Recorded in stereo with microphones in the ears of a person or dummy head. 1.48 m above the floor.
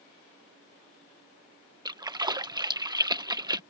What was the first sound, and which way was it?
A splash, 25° right (ahead or behind).